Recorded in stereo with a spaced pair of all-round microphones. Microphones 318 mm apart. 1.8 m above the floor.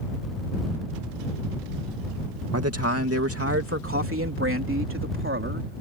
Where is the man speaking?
50° right (ahead or behind); by 5.8 s 35° right (ahead or behind).